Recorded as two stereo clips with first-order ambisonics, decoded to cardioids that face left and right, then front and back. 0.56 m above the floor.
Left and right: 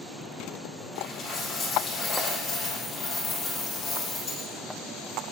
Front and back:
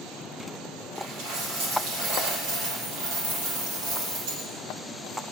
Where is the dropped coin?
155° left, 5 m.